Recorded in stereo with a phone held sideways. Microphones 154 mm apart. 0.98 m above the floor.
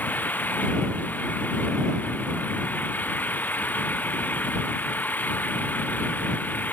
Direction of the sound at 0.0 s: 10° left (ahead or behind).